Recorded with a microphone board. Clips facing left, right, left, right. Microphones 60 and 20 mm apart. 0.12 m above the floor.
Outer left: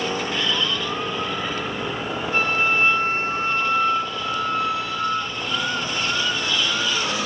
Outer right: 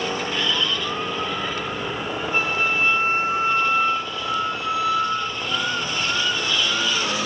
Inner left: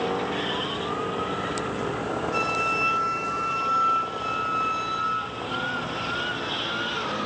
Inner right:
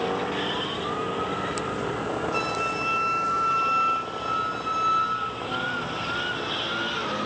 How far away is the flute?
About 4 m.